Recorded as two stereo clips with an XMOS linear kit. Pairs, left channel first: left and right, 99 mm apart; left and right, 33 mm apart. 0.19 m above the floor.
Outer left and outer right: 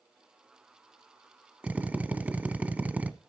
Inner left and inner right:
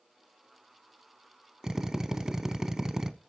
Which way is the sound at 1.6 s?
15° right (ahead or behind).